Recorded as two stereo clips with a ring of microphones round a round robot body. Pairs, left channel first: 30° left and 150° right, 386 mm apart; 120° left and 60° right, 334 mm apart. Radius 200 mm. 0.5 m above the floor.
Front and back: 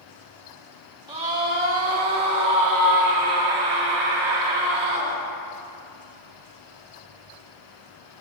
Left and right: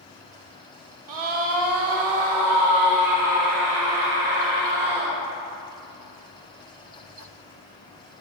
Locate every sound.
1.1 s a scream: 75° right, 1.6 m; by 5.1 s 135° right, 5 m